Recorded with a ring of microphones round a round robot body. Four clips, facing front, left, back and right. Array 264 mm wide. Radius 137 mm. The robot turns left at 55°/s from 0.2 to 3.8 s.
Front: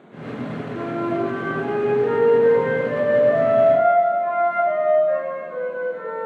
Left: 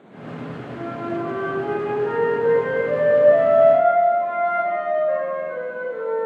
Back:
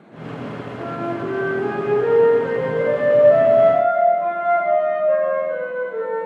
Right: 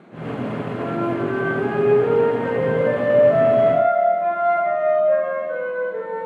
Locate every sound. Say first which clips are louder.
0.8 s a flute: right 3 dB, front 3 dB; 15° left, 8 m; by 6.3 s 150° right, 8 m